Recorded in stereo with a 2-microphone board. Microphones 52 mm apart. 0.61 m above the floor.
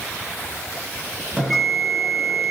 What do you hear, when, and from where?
1.4 s a bell: 5° right (ahead or behind), 4 m